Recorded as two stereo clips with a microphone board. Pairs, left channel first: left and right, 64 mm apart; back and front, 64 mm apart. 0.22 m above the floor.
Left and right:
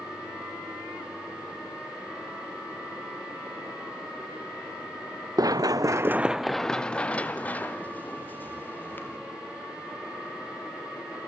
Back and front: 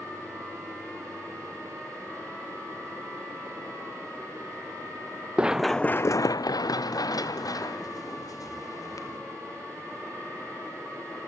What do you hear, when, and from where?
5.4 s running footsteps: 75° right, 0.8 m; by 9.2 s 150° left, 4 m